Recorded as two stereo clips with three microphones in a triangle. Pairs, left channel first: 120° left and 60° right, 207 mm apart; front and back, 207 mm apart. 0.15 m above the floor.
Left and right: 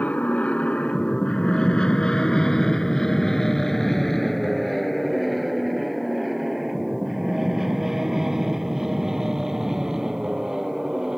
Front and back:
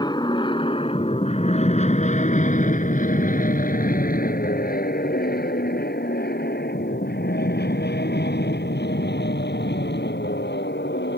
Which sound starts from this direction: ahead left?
An aircraft, at 0.0 s.